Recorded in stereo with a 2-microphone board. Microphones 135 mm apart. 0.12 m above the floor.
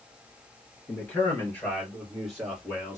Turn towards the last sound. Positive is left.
turn(degrees=-15)  # may be behind; listen again after turning